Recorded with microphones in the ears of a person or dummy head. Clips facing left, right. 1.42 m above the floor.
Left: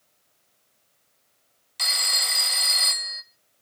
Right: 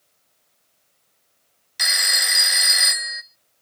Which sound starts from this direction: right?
A phone ringing, at 1.8 s.